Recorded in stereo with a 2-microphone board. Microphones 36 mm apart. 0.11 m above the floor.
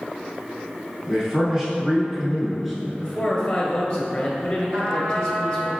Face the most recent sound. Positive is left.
turn(degrees=-60)  # may be behind; listen again after turning